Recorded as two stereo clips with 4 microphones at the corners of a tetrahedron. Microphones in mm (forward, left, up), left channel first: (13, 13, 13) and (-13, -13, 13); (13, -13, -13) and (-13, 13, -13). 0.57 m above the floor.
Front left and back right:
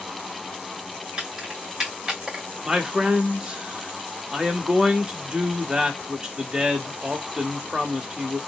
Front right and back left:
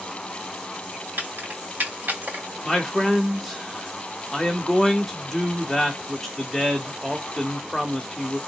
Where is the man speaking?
125° right, 0.7 m.